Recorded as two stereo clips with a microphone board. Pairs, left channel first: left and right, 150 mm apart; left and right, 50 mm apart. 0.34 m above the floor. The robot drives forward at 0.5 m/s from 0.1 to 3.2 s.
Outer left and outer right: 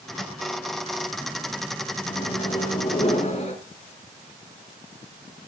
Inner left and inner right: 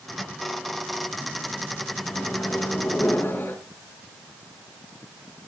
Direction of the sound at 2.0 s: 40° left (ahead or behind).